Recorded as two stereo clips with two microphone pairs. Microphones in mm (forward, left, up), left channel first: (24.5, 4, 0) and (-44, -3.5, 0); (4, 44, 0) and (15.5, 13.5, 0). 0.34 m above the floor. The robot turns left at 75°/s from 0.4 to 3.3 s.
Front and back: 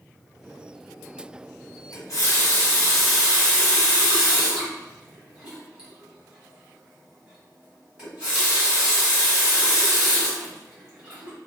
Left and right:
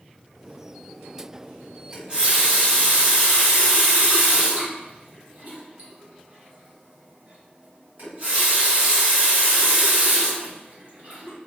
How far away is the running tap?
About 1.4 m.